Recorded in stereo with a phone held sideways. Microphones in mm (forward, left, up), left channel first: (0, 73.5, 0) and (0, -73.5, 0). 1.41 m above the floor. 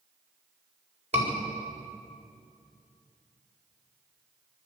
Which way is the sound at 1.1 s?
45° right (ahead or behind).